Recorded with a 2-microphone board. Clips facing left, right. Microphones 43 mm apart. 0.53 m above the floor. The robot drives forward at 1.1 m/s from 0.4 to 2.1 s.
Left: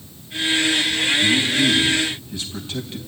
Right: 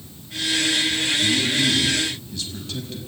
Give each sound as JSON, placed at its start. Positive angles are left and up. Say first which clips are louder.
{"t": 1.2, "sound": "a man speaking", "louder": "left 3 dB", "side_deg": 20, "distance_m": 5.5}